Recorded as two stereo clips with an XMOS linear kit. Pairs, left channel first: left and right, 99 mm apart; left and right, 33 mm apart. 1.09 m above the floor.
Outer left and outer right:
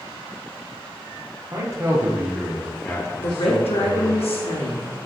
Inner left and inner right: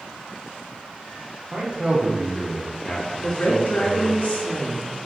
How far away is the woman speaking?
About 1.0 m.